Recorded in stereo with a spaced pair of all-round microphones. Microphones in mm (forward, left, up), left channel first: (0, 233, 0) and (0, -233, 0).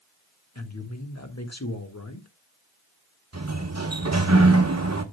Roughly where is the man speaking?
Left.